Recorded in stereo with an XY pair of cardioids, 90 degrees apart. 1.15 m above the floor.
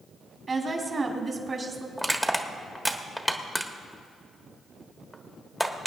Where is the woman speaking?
40° right, 2.5 m.